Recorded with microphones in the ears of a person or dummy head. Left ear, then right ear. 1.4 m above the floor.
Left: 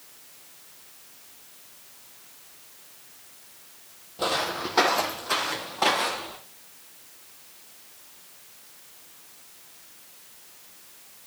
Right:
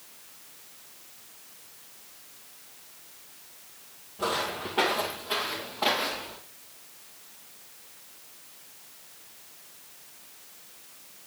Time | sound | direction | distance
4.2 | footsteps | 50° left (ahead or behind) | 2 m